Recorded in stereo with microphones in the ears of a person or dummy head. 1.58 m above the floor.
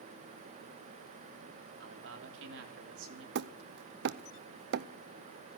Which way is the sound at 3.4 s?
55° right (ahead or behind).